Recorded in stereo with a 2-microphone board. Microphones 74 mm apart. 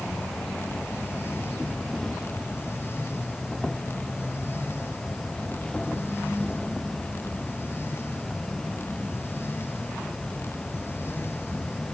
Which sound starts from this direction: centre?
An insect, at 0.0 s.